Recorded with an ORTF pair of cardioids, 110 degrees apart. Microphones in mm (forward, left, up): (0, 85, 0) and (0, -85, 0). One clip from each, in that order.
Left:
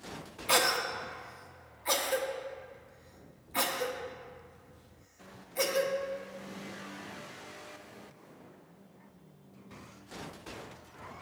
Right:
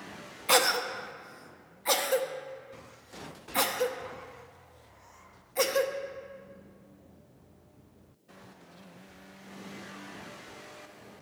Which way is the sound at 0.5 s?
20° right.